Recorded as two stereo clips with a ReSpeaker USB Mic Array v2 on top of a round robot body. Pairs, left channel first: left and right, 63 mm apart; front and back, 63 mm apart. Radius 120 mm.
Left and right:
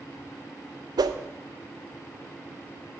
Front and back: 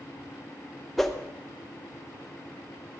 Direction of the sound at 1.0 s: 90° right.